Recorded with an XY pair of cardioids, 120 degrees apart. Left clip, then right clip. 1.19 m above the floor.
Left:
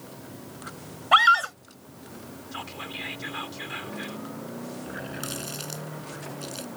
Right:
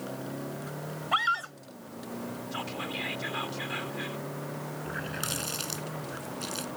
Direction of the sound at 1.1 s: 50° left.